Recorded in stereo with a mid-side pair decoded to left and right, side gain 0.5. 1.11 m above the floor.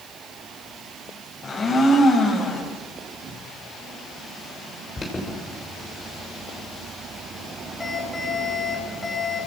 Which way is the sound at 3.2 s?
60° right.